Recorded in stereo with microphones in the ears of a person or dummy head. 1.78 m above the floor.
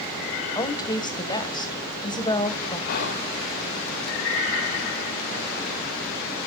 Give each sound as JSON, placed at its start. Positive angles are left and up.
{"t": 0.6, "sound": "a woman speaking", "side_deg": 25, "distance_m": 1.7}
{"t": 2.9, "sound": "whispering", "side_deg": 60, "distance_m": 0.8}